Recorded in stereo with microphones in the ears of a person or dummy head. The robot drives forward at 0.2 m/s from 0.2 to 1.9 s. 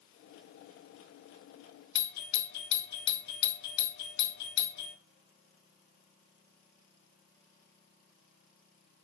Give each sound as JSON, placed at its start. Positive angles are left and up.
{"t": 1.9, "sound": "a doorbell", "side_deg": 60, "distance_m": 0.6}